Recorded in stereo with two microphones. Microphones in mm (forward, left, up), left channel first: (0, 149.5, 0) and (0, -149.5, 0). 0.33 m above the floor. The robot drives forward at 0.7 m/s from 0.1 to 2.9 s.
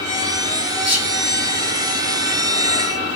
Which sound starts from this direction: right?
Whispering, at 0.8 s.